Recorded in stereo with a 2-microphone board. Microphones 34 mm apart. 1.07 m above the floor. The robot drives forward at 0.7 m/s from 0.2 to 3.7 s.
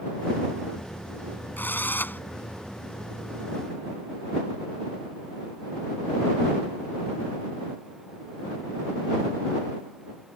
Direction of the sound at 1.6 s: 80° left.